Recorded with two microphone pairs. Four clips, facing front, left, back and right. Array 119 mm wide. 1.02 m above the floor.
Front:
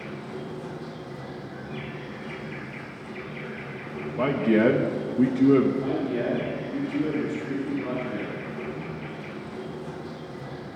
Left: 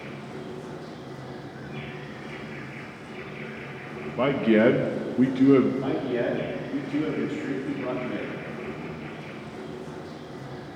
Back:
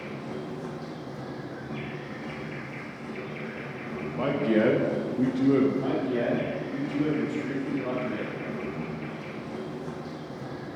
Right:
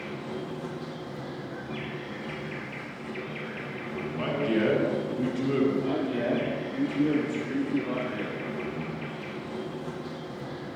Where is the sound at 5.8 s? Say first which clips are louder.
Left 2 dB, even; 110° left, 5 m.